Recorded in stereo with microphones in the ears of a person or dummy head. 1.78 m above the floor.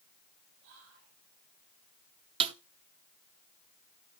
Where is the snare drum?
30° right (ahead or behind), 0.6 m.